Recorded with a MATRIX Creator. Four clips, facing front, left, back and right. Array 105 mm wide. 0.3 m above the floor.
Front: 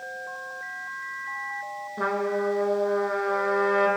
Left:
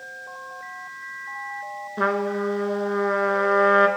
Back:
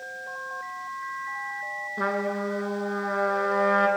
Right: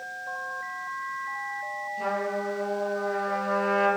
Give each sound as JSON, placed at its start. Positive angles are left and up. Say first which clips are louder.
{"t": 2.0, "sound": "a trumpet", "louder": "left 6 dB, front 2 dB", "azimuth_deg": 95, "distance_m": 2.0}